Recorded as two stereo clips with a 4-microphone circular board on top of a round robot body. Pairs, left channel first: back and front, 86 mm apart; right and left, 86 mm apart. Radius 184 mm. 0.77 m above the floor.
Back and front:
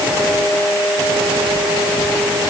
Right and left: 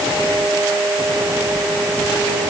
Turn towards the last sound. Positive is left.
No sound to turn to.